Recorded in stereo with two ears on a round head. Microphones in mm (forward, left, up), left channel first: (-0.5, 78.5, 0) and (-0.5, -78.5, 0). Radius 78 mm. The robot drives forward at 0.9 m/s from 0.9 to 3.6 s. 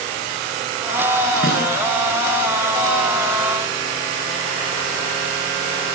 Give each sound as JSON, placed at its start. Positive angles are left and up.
{"t": 1.4, "sound": "a snare drum", "side_deg": -50, "distance_m": 9.5}